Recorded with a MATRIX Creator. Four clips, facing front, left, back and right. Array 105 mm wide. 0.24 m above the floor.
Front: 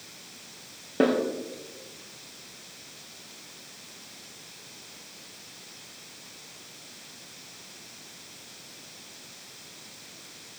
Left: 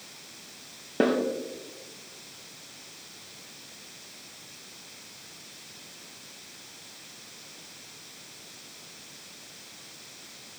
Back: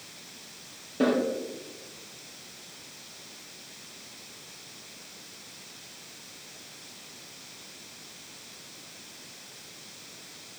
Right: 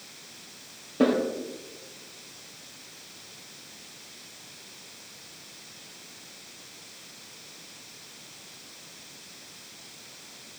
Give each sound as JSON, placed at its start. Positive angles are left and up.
{"t": 1.0, "sound": "a snare drum", "azimuth_deg": 50, "distance_m": 3.5}